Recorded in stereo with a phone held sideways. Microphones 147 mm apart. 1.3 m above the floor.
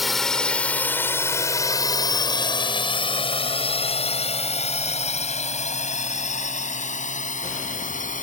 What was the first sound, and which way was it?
A drone, centre (ahead or behind).